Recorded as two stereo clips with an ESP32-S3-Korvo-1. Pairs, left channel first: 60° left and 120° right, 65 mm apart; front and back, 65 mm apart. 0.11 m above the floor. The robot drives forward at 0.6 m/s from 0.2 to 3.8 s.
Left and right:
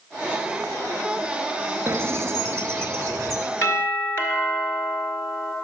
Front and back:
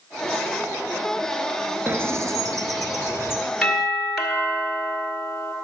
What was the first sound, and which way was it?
A bird, 145° right.